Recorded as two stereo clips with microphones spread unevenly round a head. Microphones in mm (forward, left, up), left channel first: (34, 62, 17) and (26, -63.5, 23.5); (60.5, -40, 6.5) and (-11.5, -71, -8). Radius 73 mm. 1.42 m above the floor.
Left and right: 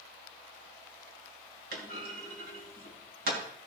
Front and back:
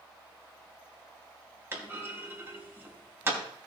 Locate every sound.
1.7 s a clunk: 95° right, 3 m